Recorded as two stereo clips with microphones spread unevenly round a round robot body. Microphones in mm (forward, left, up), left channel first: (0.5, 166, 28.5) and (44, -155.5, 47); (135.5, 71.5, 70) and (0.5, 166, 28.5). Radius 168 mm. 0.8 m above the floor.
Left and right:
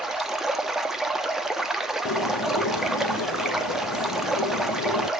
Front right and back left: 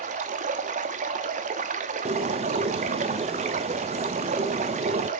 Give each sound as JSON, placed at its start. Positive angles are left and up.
{"t": 0.0, "sound": "running water", "azimuth_deg": -170, "distance_m": 0.8}
{"t": 2.0, "sound": "a bird", "azimuth_deg": 125, "distance_m": 1.1}